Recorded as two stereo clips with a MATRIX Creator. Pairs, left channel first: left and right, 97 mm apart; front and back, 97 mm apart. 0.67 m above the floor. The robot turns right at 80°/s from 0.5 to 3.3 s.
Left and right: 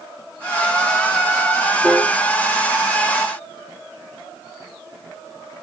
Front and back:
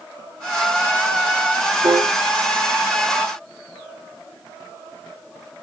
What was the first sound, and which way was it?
A piano, 170° left.